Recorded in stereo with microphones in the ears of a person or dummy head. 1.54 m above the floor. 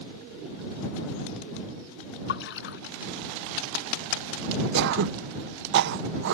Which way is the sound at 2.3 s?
60° left (ahead or behind).